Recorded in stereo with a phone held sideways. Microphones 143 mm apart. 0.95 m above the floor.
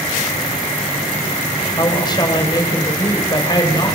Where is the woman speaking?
30° left (ahead or behind), 5 m.